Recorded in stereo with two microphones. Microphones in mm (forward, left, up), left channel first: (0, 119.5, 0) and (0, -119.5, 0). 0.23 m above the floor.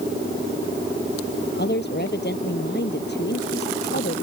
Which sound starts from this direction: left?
A woman speaking, at 1.6 s.